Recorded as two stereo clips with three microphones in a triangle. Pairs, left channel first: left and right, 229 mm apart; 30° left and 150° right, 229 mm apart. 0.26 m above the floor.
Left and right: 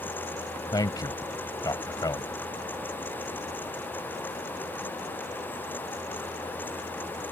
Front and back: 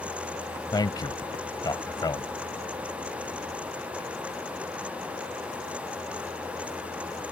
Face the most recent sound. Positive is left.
turn(degrees=55)